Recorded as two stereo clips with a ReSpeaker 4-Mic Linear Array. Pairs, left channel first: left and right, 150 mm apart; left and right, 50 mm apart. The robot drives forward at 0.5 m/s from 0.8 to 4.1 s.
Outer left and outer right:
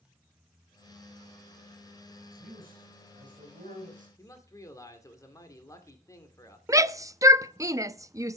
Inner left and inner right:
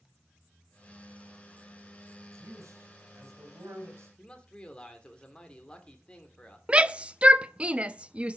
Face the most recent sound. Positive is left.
turn(degrees=-20)  # may be behind; listen again after turning